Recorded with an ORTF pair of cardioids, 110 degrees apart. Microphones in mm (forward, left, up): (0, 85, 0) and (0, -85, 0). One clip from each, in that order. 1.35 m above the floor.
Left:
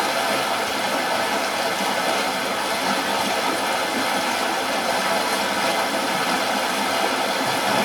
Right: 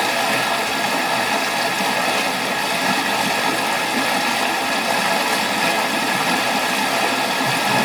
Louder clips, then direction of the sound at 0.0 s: Right 3 dB; 15° right.